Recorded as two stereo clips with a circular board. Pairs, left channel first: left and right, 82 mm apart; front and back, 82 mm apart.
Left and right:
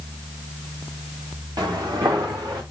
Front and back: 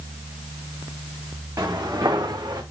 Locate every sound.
1.6 s footsteps: 130° right, 4 m; by 2.6 s 140° right, 4 m